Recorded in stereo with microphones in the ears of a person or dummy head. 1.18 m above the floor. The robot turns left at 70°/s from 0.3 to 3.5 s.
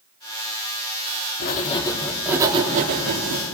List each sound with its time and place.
1.4 s writing: 55° left, 3.5 m; by 3.4 s 85° right, 3.5 m